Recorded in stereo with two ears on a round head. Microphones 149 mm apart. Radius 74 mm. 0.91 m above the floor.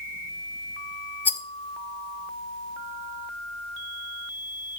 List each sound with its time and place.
1.2 s a rattle: 10° left (ahead or behind), 0.7 m